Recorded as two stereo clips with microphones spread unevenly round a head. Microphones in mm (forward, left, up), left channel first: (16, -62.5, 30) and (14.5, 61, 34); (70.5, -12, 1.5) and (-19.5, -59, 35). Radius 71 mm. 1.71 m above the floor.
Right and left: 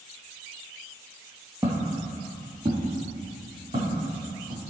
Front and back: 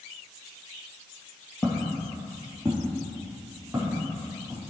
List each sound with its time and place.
1.6 s footsteps: 120° left, 1.8 m; by 4.6 s 135° left, 4.5 m